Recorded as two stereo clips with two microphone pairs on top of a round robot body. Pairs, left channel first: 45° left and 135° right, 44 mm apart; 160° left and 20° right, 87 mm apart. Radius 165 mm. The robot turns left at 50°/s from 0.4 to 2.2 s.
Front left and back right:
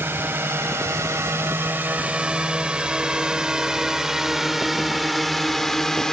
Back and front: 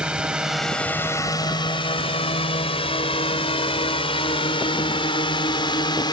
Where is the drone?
100° right; by 6.1 s 120° left.